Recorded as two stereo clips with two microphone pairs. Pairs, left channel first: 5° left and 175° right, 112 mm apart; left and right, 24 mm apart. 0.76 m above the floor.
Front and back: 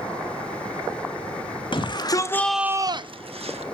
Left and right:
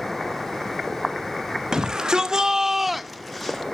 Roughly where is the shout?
Ahead right.